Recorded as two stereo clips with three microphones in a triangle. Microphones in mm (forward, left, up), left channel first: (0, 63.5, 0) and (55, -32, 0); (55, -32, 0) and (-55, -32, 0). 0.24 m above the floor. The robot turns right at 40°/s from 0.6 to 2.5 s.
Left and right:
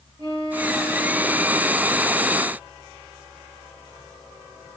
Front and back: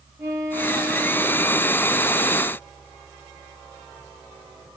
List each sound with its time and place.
0.2 s a violin: 115° right, 4.5 m; by 1.7 s 70° right, 4.5 m